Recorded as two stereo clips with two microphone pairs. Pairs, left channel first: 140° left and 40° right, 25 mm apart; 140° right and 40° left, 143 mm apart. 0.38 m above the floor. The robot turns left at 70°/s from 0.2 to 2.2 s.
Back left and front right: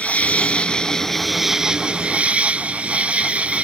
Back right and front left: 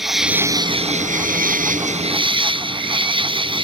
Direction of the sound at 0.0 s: 125° left.